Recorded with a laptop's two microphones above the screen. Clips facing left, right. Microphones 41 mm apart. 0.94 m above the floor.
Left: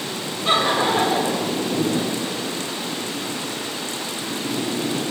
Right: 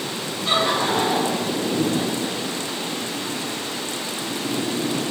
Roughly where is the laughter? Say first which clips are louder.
Left 2 dB; left.